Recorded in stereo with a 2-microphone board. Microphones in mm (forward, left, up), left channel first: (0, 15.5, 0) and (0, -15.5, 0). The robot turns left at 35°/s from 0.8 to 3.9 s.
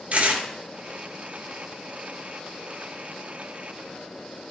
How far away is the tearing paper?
About 2.0 m.